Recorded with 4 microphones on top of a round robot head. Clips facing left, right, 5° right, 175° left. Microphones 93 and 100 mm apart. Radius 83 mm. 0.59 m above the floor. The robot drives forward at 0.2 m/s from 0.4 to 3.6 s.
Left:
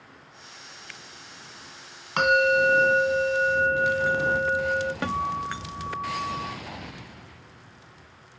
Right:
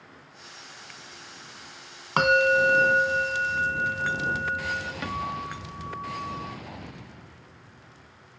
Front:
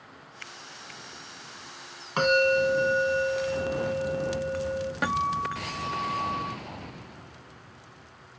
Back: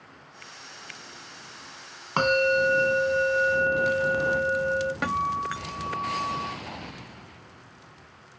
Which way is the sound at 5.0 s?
80° left.